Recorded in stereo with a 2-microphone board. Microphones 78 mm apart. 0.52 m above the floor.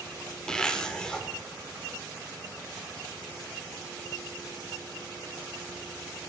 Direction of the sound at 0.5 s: 10° left (ahead or behind).